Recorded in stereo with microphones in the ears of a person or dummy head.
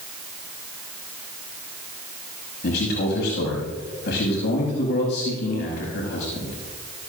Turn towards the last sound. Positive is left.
turn(degrees=65)  # may be behind; listen again after turning